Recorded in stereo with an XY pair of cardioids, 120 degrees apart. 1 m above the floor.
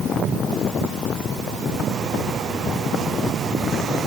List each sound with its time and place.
Only background noise.